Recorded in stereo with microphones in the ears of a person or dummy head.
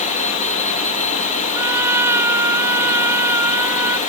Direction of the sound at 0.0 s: 35° left (ahead or behind).